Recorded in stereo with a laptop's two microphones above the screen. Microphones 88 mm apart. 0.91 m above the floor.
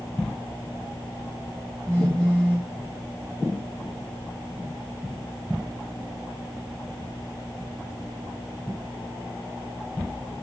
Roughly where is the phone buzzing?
Centre.